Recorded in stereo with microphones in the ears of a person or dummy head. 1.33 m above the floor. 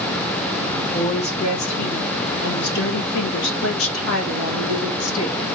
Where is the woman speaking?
25° left (ahead or behind), 1.8 m; by 5.4 s 80° left, 2.5 m.